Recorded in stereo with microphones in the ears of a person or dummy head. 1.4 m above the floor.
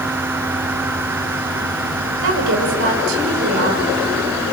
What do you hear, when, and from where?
2.2 s a woman speaking: 55° right (ahead or behind), 7 m